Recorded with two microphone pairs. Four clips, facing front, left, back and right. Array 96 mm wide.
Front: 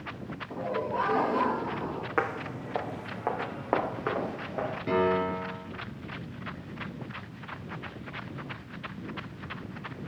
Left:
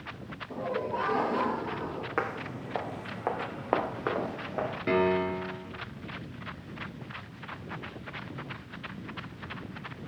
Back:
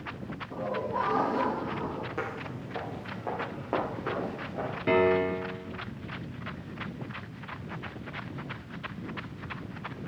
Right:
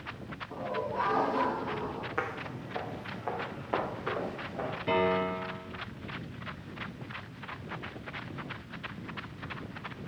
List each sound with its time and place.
0.5 s laughter: 55° left, 9.5 m; by 2.1 s 50° left, 9.5 m
2.2 s footsteps: 45° left, 1.8 m; by 4.8 s 75° left, 4.5 m
4.9 s a piano: 135° left, 5 m